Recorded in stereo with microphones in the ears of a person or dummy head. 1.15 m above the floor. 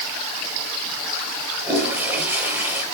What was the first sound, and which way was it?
A toilet flushing, 15° right (ahead or behind).